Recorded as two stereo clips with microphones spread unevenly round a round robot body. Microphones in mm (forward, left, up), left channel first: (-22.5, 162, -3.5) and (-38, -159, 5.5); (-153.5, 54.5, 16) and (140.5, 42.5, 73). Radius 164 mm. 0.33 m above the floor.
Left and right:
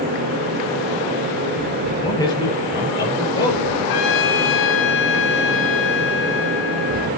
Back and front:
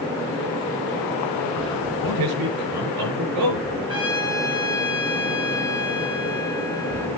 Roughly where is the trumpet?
Left.